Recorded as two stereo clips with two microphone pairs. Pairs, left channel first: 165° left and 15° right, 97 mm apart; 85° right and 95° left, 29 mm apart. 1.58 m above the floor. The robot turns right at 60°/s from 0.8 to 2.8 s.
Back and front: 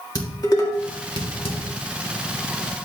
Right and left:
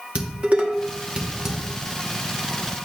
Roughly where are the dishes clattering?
Behind left.